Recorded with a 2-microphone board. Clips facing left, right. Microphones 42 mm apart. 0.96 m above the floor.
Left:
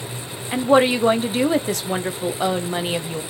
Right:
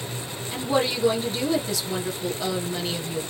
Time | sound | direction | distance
0.5 | a woman speaking | 45° left (ahead or behind) | 0.9 m